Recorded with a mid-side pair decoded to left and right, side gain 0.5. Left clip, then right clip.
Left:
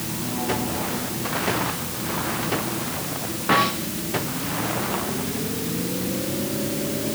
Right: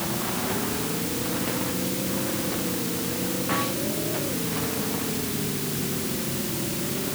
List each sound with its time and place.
Only background noise.